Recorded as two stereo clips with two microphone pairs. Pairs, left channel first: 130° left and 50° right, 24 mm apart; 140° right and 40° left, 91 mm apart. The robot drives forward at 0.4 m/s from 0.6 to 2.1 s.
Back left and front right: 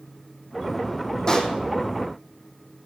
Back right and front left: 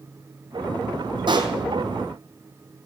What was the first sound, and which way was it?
A pop, 70° left.